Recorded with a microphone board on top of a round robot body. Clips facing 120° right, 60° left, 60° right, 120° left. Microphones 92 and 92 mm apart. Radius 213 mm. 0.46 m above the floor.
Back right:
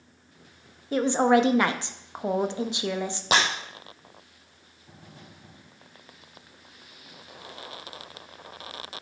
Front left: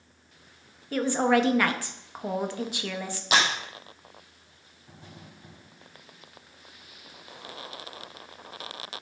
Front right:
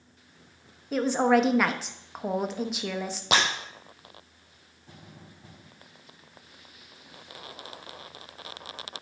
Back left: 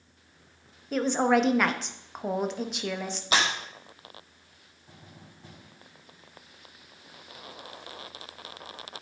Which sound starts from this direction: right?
Breaking glass, at 3.3 s.